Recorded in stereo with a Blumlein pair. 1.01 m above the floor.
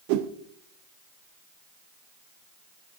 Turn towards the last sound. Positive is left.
turn(degrees=-45)